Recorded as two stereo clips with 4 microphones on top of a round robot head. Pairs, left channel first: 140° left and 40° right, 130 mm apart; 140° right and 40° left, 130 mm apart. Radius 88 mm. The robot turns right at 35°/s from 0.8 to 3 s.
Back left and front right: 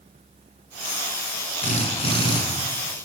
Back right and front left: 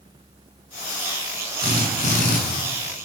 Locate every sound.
1.6 s a drill: 170° left, 6 m; by 2.4 s 160° right, 6 m